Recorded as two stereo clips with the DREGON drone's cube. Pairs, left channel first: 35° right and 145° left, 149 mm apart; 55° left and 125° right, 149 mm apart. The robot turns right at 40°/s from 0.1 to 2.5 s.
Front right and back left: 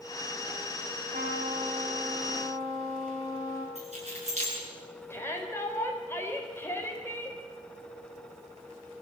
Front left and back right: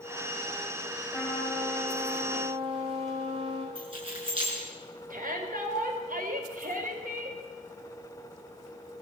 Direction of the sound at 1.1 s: 130° left.